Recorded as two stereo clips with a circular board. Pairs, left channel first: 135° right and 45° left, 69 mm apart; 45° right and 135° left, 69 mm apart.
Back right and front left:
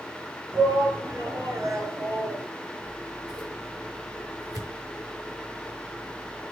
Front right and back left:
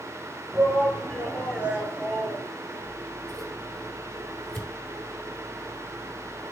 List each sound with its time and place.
0.5 s a shout: 60° left, 5 m; by 2.5 s 70° left, 4 m
2.8 s scissors: 40° left, 4.5 m